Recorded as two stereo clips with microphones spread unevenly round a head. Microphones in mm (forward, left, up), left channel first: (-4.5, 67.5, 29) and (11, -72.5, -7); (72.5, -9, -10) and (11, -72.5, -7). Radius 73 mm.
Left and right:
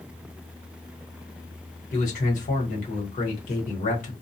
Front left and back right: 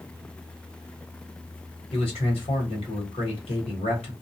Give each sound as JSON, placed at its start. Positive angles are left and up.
{"t": 1.9, "sound": "a man speaking", "azimuth_deg": 65, "distance_m": 1.3}